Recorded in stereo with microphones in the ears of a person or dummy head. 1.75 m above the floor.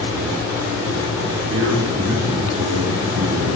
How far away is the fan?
About 3 m.